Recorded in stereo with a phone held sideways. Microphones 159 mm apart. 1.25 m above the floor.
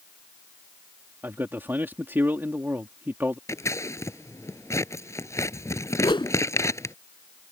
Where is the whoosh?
30° left (ahead or behind).